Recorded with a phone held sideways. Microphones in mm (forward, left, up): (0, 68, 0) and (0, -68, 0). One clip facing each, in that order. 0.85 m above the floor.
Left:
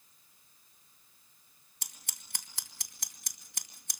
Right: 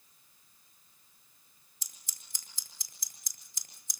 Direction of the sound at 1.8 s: 70° left (ahead or behind).